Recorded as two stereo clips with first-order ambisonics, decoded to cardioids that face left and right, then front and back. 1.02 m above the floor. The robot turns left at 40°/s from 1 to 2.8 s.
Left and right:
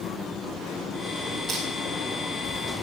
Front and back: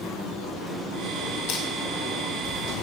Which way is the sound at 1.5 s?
15° right.